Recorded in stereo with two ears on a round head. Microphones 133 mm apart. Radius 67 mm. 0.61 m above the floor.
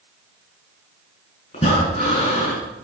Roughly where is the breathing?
Left.